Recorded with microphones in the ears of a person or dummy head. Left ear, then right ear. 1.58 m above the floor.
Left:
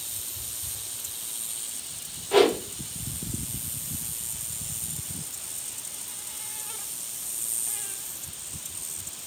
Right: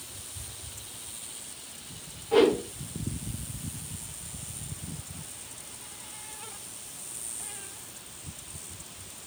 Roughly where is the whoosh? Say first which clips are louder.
Left 1 dB; centre.